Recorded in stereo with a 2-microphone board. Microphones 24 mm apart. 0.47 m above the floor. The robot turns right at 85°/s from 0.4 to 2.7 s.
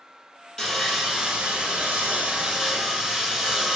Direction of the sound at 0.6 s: 160° left.